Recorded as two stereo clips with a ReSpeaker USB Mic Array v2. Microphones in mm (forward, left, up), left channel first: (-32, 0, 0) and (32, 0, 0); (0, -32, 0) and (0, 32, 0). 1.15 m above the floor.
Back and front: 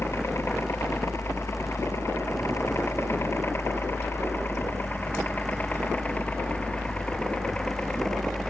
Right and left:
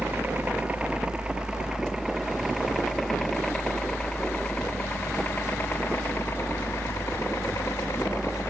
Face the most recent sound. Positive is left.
turn(degrees=-105)